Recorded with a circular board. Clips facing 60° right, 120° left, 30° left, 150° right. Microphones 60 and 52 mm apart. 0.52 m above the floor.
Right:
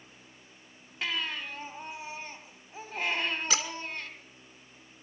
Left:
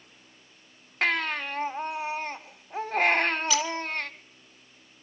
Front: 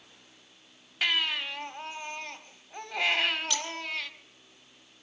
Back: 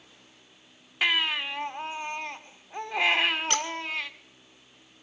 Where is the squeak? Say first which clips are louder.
Left 5 dB, back 5 dB; 105° right, 1.9 m.